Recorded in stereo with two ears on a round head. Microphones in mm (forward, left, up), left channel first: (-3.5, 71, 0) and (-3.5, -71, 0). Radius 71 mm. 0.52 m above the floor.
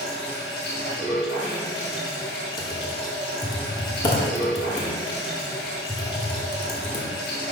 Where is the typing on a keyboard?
30° left (ahead or behind), 1.4 m.